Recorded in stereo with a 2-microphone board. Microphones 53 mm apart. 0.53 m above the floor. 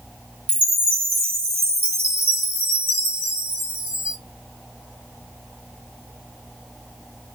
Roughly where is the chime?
Right.